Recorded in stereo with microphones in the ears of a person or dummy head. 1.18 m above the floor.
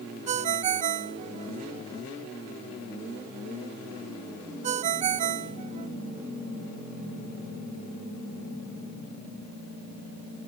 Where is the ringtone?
40° right (ahead or behind), 0.5 m.